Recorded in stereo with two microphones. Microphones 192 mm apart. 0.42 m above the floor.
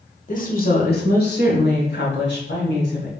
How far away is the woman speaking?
About 1.2 m.